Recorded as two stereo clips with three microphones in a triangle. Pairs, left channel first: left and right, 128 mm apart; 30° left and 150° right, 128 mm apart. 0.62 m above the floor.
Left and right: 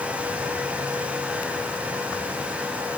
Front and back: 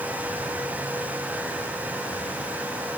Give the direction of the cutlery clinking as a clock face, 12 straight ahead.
I don't hear cutlery clinking.